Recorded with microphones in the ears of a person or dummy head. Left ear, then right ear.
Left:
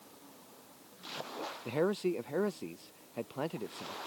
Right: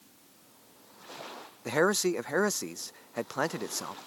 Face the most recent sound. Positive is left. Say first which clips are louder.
# right 6 dB
turn(degrees=-55)  # may be behind; listen again after turning